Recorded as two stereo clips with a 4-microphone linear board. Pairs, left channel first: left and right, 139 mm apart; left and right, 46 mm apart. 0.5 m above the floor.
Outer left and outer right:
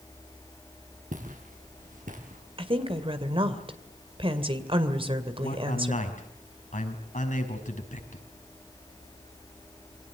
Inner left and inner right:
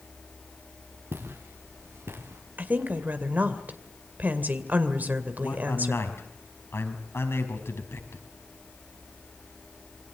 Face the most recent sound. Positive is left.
turn(degrees=75)  # may be behind; listen again after turning